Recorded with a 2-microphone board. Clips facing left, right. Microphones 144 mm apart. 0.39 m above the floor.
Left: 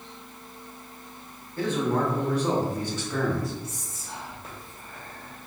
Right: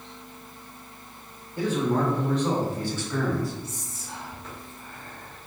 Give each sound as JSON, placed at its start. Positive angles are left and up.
{"t": 1.6, "sound": "a man speaking", "side_deg": -15, "distance_m": 1.2}
{"t": 3.6, "sound": "whispering", "side_deg": 45, "distance_m": 1.5}